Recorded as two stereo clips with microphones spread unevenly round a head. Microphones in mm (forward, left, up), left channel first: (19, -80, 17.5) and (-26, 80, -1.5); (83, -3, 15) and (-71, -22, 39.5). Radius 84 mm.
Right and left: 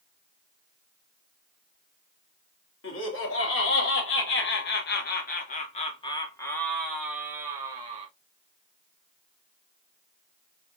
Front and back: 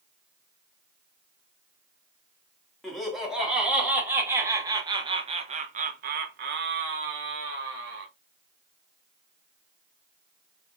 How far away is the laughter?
About 2.0 m.